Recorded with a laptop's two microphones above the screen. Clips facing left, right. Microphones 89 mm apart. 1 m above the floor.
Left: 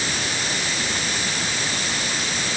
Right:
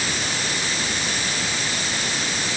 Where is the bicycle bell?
No bicycle bell in this recording.